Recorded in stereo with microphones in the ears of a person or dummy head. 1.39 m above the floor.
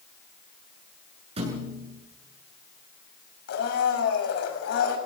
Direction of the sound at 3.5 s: 65° left (ahead or behind).